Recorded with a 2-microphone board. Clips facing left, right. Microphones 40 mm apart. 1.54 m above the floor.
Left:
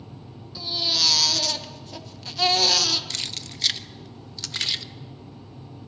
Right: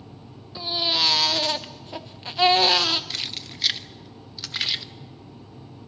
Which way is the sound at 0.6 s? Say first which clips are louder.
Right 2 dB; 25° right (ahead or behind).